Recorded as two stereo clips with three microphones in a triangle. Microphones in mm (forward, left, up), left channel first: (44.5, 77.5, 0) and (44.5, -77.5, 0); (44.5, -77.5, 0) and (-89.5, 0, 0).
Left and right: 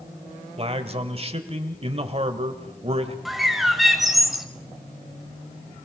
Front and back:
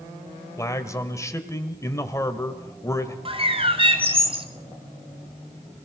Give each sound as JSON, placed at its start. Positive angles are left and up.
{"t": 0.6, "sound": "a man speaking", "azimuth_deg": -90, "distance_m": 1.6}
{"t": 3.2, "sound": "a bird", "azimuth_deg": 180, "distance_m": 1.6}